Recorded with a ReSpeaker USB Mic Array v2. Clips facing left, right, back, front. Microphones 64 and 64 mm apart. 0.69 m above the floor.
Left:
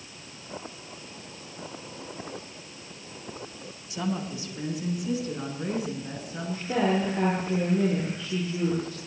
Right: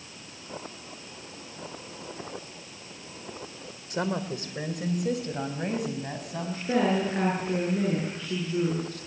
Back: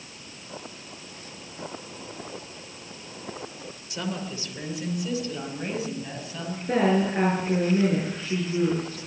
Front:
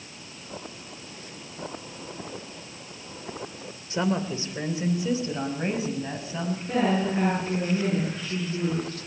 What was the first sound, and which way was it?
A woman speaking, 55° right.